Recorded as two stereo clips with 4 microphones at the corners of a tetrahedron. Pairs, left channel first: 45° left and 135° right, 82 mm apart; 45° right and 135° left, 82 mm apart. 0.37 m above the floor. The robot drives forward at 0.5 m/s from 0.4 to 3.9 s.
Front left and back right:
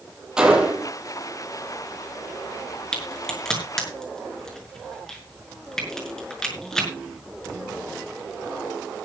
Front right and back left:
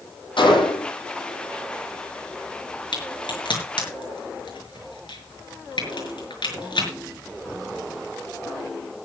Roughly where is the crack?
Ahead right.